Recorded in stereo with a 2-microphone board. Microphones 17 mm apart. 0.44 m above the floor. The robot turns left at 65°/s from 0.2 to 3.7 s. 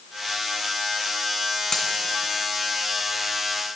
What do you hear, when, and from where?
1.7 s a dropped coin: 50° left (ahead or behind), 2 m; by 1.9 s 65° left (ahead or behind), 2 m